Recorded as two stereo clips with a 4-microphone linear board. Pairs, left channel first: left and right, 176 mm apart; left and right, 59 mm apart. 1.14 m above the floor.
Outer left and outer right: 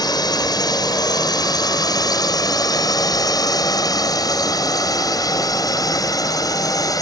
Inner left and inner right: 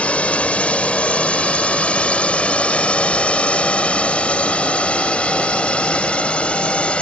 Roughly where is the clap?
No clap in this recording.